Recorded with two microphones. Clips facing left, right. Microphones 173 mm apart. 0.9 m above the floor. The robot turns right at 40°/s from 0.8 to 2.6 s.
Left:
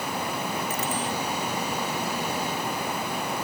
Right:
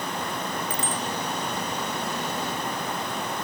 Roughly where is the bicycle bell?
Right.